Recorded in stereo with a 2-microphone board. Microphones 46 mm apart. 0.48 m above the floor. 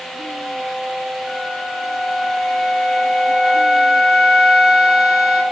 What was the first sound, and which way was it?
A flute, 5° right (ahead or behind).